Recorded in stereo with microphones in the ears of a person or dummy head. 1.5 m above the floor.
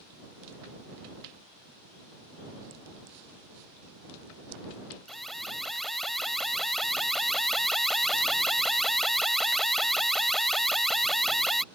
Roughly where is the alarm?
Centre.